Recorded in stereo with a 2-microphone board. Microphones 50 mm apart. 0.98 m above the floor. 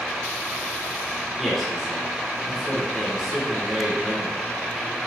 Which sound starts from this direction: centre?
A man speaking, at 1.4 s.